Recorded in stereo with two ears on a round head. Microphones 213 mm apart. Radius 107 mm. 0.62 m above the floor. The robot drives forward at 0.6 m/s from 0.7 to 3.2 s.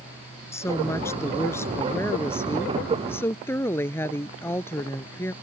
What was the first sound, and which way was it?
A woman speaking, 10° left (ahead or behind).